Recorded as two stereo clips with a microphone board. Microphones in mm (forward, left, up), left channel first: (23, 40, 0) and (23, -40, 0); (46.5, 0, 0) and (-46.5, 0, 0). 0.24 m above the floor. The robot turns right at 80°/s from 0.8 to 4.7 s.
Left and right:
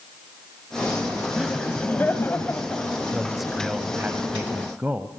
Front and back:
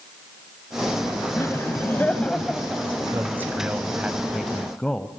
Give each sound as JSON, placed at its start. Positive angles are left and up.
{"t": 1.4, "sound": "laughter", "azimuth_deg": -5, "distance_m": 1.7}
{"t": 3.1, "sound": "a man speaking", "azimuth_deg": 160, "distance_m": 0.9}